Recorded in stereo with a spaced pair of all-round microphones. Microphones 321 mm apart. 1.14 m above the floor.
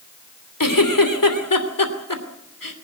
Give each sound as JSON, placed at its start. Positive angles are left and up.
{"t": 0.6, "sound": "a giggle", "side_deg": 90, "distance_m": 3.0}